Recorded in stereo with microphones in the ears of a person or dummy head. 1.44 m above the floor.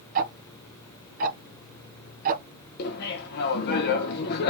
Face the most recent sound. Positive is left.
turn(degrees=50)  # may be behind; listen again after turning